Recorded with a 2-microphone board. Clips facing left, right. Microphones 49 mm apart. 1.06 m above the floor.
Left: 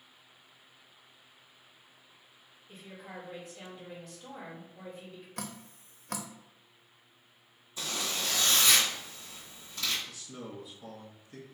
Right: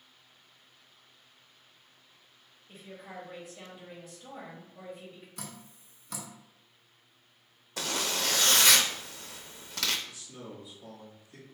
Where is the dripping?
55° left (ahead or behind), 0.5 m.